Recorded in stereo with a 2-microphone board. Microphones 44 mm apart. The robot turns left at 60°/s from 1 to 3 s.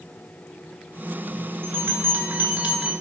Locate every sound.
1.6 s a bell: 60° right, 2 m; by 2.9 s 140° right, 2 m